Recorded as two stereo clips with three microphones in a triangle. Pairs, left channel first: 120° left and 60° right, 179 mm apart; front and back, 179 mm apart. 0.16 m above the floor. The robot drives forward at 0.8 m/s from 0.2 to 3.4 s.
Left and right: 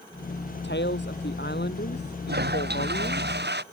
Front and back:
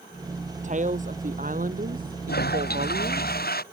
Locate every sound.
0.6 s a woman speaking: 135° left; by 3.3 s 145° left
2.3 s a toilet flushing: 30° right; by 3.6 s 35° right